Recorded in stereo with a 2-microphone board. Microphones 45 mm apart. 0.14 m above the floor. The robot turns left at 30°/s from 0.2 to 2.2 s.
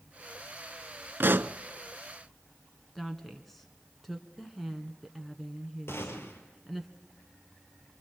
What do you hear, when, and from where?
1.2 s a pop: 50° right (ahead or behind), 0.5 m
3.0 s a woman speaking: centre (ahead or behind), 1.7 m
5.9 s a gunshot: 65° left (ahead or behind), 3 m